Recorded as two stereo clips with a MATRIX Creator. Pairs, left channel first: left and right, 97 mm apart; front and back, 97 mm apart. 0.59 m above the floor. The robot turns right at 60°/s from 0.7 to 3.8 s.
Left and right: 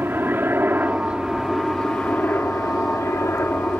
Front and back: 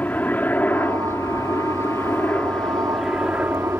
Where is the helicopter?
50° right; by 3.8 s 135° left.